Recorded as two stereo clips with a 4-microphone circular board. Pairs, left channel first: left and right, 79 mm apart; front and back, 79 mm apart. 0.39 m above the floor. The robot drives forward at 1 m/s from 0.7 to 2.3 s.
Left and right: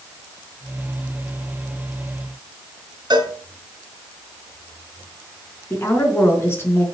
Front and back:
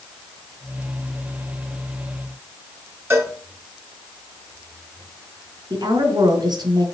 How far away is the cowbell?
About 2.5 m.